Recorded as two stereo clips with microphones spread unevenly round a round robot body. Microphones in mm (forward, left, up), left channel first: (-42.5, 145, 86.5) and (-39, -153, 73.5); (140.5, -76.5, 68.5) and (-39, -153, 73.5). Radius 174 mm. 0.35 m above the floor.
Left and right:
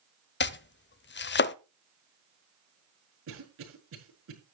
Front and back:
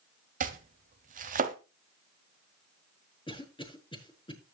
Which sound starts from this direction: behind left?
Chopping, at 0.4 s.